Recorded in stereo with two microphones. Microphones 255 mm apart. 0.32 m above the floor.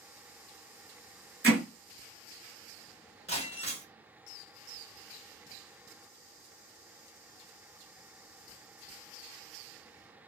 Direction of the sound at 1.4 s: 40° right (ahead or behind).